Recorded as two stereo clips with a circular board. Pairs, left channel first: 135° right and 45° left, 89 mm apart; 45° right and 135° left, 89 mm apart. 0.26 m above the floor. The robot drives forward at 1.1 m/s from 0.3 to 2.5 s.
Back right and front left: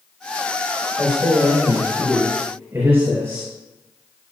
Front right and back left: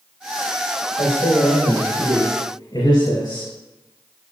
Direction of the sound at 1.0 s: 15° right.